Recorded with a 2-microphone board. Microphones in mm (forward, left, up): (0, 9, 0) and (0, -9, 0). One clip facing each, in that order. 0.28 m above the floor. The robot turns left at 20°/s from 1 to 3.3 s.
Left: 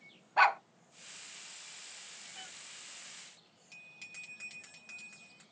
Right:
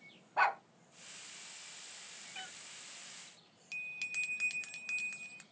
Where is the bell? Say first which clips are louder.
Right 10 dB; 55° right (ahead or behind), 1.0 m.